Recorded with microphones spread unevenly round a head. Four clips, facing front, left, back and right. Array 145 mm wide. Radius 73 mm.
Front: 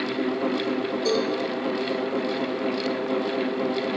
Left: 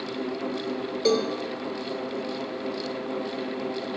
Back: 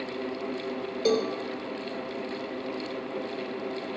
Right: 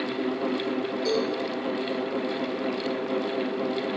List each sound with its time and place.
1.1 s a cowbell: 120° left, 1.8 m